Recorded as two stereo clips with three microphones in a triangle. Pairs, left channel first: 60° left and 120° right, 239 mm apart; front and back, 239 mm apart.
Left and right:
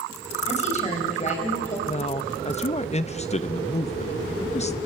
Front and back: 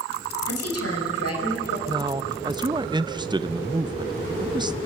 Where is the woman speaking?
Straight ahead, 5.5 m.